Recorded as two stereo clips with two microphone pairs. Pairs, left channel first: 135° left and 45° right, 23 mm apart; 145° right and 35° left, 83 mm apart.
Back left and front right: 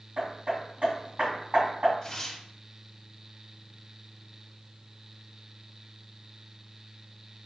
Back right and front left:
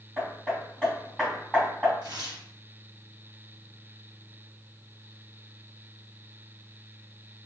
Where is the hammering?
45° right, 2.5 m.